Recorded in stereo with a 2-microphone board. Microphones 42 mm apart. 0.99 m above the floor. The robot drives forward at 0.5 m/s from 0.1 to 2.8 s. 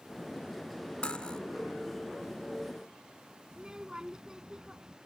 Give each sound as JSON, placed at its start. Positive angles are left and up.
{"t": 1.0, "sound": "cutlery clinking", "side_deg": 30}
{"t": 3.5, "sound": "a child speaking", "side_deg": -15}